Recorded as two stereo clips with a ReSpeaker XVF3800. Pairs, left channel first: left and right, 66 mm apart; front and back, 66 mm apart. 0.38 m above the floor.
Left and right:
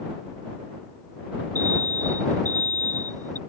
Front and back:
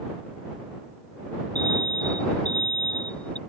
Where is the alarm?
70° right.